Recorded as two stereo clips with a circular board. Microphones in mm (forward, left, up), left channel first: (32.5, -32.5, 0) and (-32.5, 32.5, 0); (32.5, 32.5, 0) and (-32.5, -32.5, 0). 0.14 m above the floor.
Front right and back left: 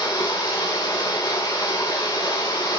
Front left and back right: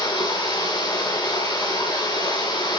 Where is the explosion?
I don't hear an explosion.